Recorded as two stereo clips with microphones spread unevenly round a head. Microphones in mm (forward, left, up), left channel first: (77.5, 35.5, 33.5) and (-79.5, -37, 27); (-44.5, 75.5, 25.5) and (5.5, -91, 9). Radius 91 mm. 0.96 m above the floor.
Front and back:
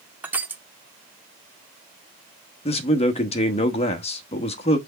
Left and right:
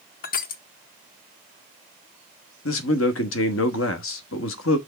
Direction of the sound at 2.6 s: 85° left.